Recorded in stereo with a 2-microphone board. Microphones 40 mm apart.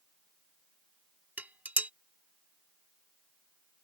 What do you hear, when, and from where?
1.4 s dishes clattering: 45° right (ahead or behind)